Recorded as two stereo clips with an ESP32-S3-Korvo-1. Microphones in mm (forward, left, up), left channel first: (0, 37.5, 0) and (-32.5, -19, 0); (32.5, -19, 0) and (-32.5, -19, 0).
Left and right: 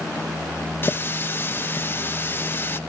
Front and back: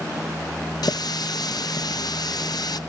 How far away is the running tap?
About 0.7 m.